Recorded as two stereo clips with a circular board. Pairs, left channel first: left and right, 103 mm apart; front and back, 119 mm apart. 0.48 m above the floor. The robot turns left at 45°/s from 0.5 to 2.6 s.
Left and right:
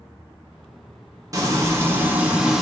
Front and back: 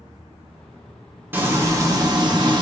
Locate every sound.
1.3 s frying: 115° right, 0.8 m; by 2.6 s 170° right, 0.8 m